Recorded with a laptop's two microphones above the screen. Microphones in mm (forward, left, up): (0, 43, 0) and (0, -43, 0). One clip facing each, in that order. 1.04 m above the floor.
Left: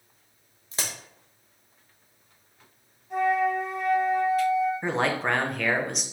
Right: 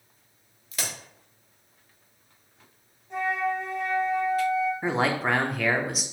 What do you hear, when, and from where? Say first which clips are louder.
0.7 s a crack: even; 30° left (ahead or behind), 0.8 m
3.1 s a flute: left 4 dB; 10° left (ahead or behind), 1.5 m
4.8 s a man speaking: right 1 dB; 5° right (ahead or behind), 0.6 m